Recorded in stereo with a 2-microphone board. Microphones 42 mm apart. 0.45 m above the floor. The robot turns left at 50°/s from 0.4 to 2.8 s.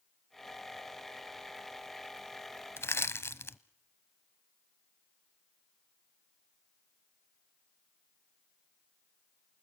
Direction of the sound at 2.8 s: 70° left (ahead or behind).